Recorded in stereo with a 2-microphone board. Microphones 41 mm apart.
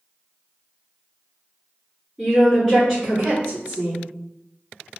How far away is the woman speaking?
About 1.9 m.